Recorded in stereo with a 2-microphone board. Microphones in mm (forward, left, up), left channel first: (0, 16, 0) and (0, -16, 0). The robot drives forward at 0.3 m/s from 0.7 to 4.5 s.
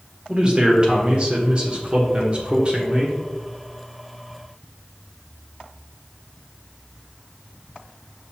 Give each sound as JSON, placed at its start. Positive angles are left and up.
{"t": 0.3, "sound": "a man speaking", "side_deg": -30, "distance_m": 1.3}